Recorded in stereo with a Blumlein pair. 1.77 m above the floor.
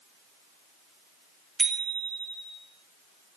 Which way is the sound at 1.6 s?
15° right.